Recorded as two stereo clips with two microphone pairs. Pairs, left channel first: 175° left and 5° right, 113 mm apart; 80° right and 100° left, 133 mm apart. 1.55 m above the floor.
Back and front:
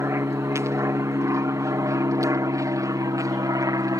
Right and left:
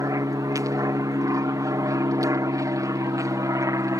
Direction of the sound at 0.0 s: 45° left.